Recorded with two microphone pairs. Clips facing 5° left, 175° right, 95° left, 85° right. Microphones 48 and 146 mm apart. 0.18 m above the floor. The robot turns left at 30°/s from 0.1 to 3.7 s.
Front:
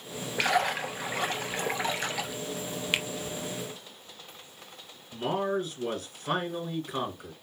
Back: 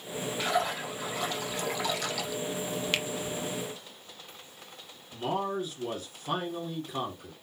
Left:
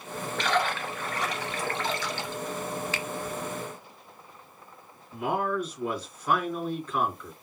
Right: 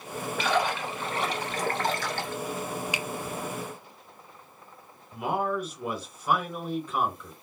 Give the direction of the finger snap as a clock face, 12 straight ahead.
1 o'clock.